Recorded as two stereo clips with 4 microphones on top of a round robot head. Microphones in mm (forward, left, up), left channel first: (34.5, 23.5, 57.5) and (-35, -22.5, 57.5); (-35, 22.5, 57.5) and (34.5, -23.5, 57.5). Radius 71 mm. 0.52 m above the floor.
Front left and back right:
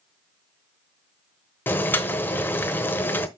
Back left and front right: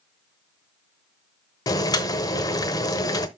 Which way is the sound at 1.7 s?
100° left.